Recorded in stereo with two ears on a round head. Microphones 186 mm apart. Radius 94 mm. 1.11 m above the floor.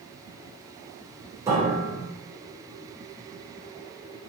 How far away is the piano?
About 4.5 m.